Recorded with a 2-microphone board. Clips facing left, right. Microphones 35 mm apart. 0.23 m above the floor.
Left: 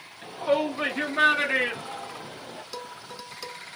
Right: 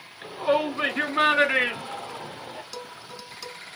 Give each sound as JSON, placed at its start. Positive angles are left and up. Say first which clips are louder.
{"t": 0.2, "sound": "a shout", "louder": "right 1 dB", "side_deg": -30, "distance_m": 3.5}
{"t": 2.7, "sound": "dishes clattering", "louder": "even", "side_deg": 10, "distance_m": 1.0}